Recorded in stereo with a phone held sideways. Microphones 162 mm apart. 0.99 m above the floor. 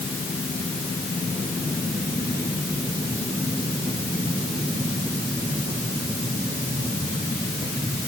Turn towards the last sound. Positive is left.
No sound to turn to.